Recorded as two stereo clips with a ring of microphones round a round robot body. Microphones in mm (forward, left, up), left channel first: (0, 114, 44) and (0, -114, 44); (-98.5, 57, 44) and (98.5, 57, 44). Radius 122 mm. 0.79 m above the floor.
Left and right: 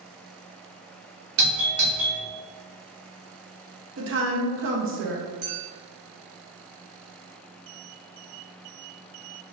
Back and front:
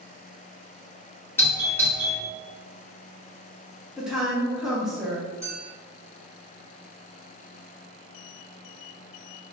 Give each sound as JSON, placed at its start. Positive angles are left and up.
{"t": 1.4, "sound": "a doorbell", "azimuth_deg": -100, "distance_m": 1.5}
{"t": 4.0, "sound": "a woman speaking", "azimuth_deg": -85, "distance_m": 0.9}
{"t": 5.4, "sound": "a clink", "azimuth_deg": -80, "distance_m": 1.6}